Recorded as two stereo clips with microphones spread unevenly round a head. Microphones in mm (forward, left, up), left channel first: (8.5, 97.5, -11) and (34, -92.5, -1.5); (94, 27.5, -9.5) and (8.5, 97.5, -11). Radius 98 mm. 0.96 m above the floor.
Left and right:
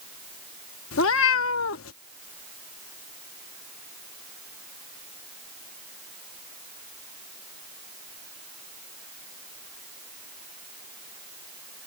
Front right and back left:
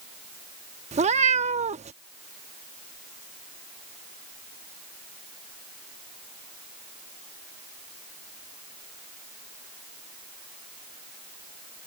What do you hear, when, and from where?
0.9 s a cat meowing: 125° left